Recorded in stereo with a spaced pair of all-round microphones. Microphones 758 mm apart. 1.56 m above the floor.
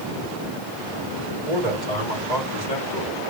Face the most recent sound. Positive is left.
turn(degrees=50)  # may be behind; listen again after turning